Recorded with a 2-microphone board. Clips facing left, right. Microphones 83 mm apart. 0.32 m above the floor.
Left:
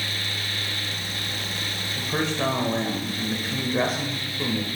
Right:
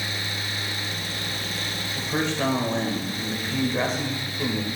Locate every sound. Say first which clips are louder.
2.0 s a man speaking: even; 5° left (ahead or behind), 0.9 m